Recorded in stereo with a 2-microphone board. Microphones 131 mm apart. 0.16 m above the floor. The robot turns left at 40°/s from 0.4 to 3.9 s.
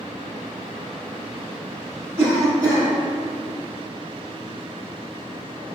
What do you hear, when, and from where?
2.2 s a cough: 20° right (ahead or behind), 1.3 m; by 2.9 s 35° right (ahead or behind), 1.3 m